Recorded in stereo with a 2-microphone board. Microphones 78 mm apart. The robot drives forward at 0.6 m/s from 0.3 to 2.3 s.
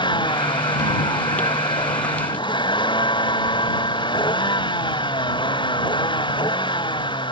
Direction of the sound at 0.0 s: 80° left.